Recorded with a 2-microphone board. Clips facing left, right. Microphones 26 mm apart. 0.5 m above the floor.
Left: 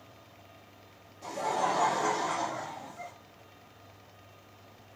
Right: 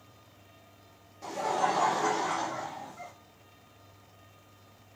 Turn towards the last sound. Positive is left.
turn(degrees=-30)  # may be behind; listen again after turning